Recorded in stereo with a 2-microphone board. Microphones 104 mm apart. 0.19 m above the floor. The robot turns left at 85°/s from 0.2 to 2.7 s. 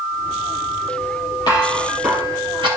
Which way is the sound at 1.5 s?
45° left (ahead or behind).